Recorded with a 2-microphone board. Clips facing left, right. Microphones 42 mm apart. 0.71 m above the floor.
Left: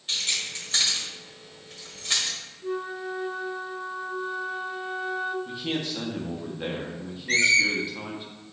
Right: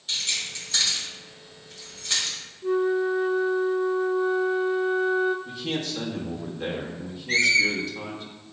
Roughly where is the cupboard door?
I don't hear a cupboard door.